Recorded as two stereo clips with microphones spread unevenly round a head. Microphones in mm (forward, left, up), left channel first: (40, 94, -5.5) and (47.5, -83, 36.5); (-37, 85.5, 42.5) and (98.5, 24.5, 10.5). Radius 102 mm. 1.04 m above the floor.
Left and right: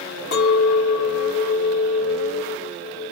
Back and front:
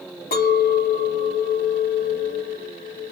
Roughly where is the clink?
Behind left.